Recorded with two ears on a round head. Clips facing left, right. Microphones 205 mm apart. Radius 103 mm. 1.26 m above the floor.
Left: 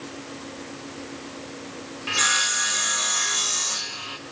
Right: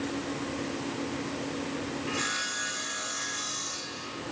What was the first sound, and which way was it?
Sawing, 70° left (ahead or behind).